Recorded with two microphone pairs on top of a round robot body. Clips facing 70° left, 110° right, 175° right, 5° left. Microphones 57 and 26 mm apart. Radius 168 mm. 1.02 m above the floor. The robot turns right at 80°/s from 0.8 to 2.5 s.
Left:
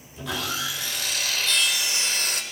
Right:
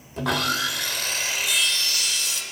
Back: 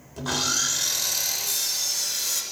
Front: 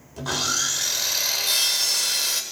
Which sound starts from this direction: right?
Sawing, at 0.2 s.